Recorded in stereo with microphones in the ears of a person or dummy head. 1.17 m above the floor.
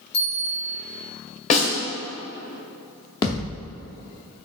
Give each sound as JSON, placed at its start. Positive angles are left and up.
{"t": 0.1, "sound": "a bell", "side_deg": 65, "distance_m": 1.6}
{"t": 1.5, "sound": "a snare drum", "side_deg": 40, "distance_m": 1.6}
{"t": 3.2, "sound": "a thud", "side_deg": 20, "distance_m": 0.7}